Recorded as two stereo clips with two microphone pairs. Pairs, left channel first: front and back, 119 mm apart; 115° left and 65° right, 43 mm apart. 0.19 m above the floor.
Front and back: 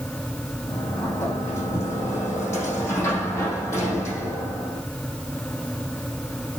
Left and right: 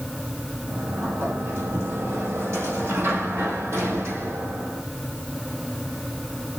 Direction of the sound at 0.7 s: 65° right.